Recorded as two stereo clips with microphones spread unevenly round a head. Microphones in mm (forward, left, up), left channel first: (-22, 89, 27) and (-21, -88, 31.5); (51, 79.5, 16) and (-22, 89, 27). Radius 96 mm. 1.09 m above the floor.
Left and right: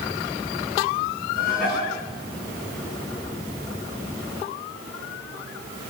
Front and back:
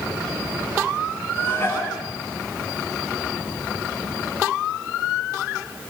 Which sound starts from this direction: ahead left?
Dishes clattering, at 1.4 s.